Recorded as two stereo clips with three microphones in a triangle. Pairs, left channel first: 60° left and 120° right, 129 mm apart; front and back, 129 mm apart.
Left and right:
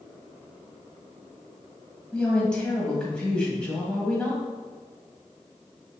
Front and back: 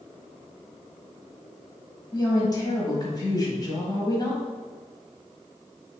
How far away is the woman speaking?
About 1.2 m.